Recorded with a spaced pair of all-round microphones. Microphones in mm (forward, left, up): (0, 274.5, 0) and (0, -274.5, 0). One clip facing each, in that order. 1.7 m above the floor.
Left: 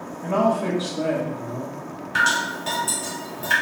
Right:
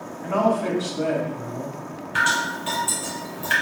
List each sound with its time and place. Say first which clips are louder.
0.2 s a man speaking: even; 60° left (ahead or behind), 1.6 m
2.1 s dripping: even; 70° left (ahead or behind), 1.3 m